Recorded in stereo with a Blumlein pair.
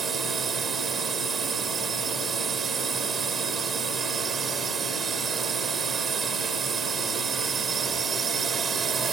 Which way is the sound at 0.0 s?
20° right.